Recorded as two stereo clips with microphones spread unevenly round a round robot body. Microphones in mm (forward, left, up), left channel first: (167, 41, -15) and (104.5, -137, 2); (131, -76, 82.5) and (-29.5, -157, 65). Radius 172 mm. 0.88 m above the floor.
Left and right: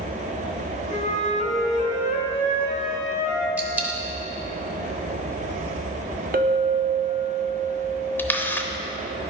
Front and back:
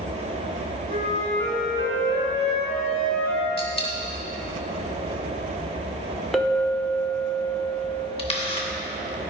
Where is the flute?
15° left, 2 m.